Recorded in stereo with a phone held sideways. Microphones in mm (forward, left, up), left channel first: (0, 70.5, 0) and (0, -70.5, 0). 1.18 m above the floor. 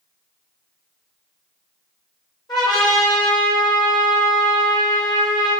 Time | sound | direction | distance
2.5 | a trumpet | 30° left (ahead or behind) | 4 m